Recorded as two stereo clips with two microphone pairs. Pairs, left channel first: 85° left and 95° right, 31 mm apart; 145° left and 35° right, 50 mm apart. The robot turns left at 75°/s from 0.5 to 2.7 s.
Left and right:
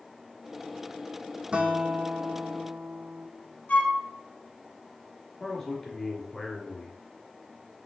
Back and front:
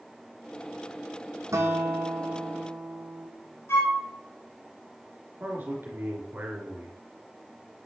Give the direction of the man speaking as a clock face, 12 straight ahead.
12 o'clock.